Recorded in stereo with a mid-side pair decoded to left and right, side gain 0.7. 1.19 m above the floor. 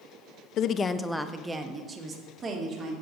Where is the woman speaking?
50° left, 0.7 m; by 2.9 s 35° right, 2.5 m.